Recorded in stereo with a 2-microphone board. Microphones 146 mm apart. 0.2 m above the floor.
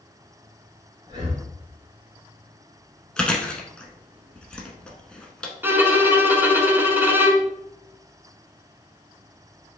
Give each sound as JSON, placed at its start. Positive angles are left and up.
{"t": 1.1, "sound": "breathing", "side_deg": -35, "distance_m": 1.2}
{"t": 3.2, "sound": "chewing", "side_deg": 5, "distance_m": 0.9}
{"t": 5.6, "sound": "a violin", "side_deg": -15, "distance_m": 0.7}